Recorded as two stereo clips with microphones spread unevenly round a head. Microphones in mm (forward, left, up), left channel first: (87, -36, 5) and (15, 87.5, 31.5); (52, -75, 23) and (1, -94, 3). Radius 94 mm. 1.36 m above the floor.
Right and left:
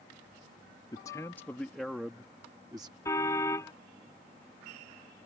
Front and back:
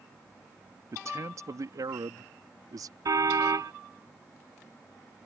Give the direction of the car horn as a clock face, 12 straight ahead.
5 o'clock.